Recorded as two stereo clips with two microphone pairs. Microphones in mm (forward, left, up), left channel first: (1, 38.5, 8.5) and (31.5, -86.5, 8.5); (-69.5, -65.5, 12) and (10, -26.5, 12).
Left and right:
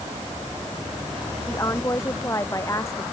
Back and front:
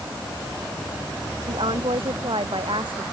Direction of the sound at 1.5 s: 40° left.